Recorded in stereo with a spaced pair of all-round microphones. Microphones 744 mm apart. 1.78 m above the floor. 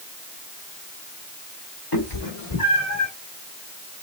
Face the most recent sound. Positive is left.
turn(degrees=50)  # may be behind; listen again after turning